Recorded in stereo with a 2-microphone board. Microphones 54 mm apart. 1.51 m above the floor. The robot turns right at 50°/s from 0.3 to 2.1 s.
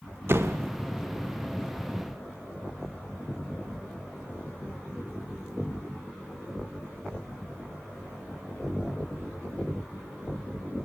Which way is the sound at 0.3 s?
50° right (ahead or behind).